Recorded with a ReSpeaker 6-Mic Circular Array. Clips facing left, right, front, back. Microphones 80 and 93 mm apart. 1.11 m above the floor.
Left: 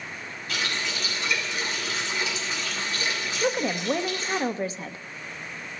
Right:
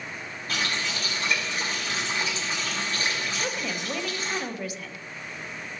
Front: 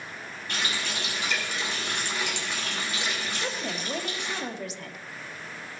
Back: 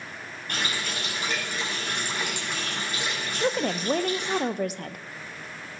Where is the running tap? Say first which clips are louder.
Right 1 dB, back 1 dB; 140° right, 5.5 m.